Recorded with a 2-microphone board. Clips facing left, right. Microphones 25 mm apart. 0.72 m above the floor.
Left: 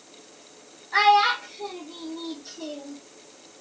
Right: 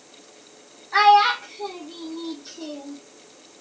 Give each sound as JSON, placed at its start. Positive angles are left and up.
{"t": 0.9, "sound": "a child speaking", "side_deg": -10, "distance_m": 0.6}